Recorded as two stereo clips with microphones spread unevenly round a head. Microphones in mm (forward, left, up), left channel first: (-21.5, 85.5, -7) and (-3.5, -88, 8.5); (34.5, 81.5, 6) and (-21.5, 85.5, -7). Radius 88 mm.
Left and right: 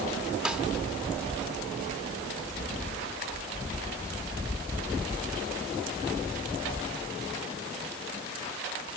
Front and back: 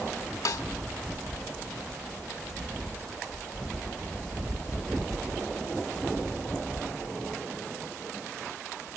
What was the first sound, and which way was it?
A snare drum, straight ahead.